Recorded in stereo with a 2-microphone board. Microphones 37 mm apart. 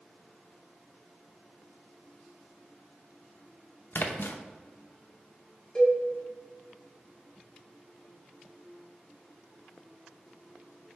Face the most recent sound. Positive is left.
turn(degrees=20)  # may be behind; listen again after turning